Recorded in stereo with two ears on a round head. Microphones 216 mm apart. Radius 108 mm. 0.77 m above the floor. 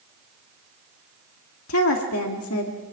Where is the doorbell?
I don't hear a doorbell.